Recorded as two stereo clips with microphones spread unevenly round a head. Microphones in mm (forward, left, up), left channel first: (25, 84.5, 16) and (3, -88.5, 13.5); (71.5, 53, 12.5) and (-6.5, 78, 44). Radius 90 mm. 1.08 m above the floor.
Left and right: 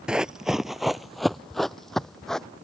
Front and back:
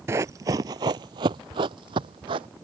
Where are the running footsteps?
Straight behind; by 2.5 s 170° left.